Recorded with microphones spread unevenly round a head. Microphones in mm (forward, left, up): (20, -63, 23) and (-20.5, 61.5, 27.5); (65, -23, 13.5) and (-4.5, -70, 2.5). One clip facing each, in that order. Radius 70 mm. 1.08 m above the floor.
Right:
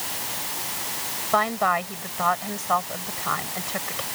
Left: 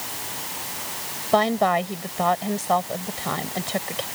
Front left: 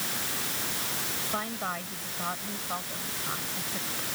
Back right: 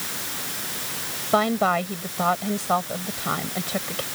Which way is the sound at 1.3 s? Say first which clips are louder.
Left 4 dB, back right 15 dB; 170° left.